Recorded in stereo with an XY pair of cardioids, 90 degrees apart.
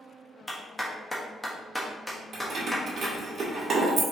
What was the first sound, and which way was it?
A clap, 5° left.